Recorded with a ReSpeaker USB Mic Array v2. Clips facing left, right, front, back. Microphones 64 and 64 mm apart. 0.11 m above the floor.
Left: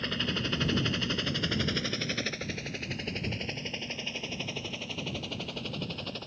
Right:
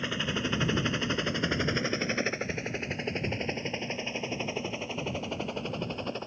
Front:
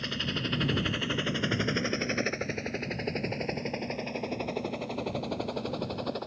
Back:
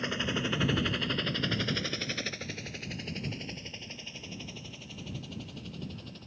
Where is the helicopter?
150° right; by 6.3 s 25° right.